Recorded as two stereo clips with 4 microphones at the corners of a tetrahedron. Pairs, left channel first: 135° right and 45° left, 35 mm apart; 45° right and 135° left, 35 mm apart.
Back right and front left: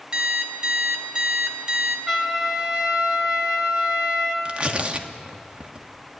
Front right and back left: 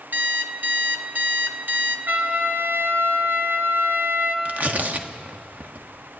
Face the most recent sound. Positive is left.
turn(degrees=100)